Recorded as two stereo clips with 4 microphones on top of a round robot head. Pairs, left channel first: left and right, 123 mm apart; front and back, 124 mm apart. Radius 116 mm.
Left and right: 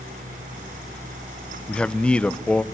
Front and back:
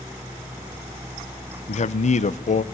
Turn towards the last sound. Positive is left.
turn(degrees=10)